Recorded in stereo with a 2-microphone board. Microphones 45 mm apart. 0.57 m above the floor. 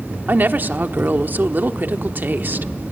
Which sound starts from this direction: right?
A woman speaking, at 0.3 s.